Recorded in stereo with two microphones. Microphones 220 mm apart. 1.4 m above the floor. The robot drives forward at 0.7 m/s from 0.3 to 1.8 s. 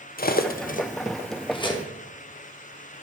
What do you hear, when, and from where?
0.2 s cutlery clinking: 45° left (ahead or behind), 0.6 m; by 1.9 s 20° left (ahead or behind), 1.1 m